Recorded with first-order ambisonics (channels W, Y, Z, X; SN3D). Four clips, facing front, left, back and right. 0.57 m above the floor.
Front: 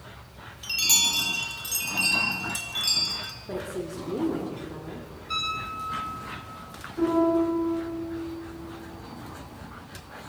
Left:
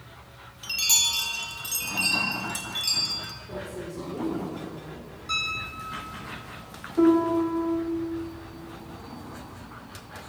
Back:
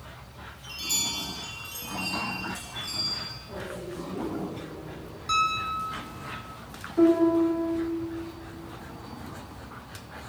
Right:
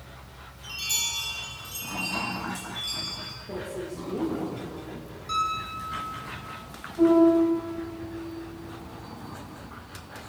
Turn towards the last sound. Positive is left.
turn(degrees=120)